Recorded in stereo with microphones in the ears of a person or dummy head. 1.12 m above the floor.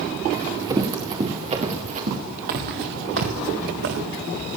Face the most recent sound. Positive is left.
turn(degrees=-70)  # may be behind; listen again after turning